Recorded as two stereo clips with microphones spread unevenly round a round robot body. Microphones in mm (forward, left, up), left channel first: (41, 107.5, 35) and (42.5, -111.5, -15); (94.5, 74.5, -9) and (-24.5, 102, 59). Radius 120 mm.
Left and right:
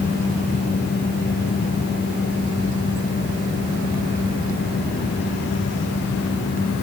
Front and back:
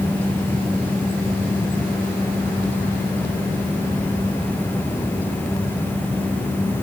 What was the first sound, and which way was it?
Only background noise.